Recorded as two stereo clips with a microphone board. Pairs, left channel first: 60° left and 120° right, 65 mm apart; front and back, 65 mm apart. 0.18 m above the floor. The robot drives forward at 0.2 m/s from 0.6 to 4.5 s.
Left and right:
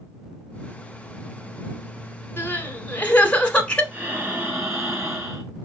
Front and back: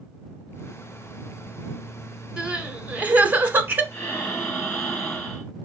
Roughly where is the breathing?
Right.